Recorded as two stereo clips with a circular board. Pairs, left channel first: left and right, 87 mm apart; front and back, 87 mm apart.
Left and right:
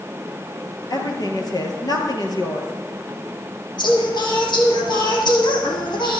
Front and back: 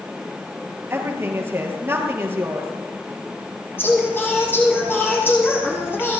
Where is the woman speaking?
120° left, 3.5 m.